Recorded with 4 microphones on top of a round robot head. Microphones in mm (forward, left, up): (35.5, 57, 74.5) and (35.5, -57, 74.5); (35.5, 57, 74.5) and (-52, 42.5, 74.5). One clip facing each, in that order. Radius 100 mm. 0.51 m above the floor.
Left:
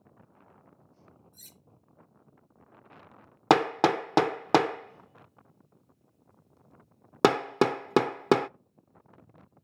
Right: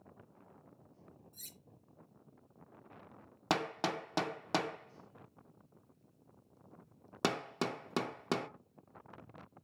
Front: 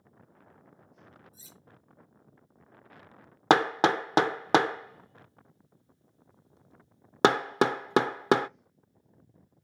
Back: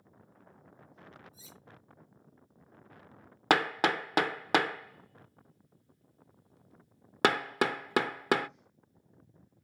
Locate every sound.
1.3 s cutlery clinking: 55° right, 4 m
3.5 s hammering: 75° left, 0.5 m